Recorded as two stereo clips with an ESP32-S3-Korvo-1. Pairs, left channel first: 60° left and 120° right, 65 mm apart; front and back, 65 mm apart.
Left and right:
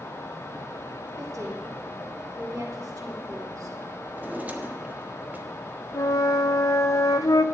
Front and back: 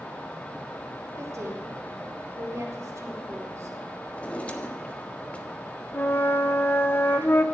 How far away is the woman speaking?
About 3.5 m.